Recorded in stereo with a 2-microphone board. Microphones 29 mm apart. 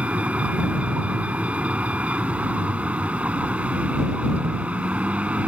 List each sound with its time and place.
0.0 s a vehicle: 55° right (ahead or behind)